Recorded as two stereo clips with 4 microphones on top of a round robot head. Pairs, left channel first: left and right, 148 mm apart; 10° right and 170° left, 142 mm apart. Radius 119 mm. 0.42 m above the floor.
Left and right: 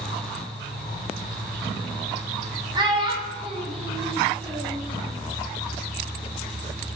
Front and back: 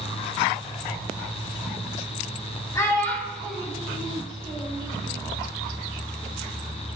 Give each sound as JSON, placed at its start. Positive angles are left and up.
{"t": 2.8, "sound": "a child speaking", "azimuth_deg": -60, "distance_m": 1.0}